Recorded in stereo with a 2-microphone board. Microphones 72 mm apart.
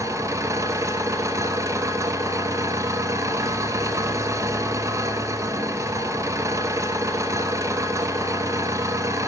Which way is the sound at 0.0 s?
45° right (ahead or behind).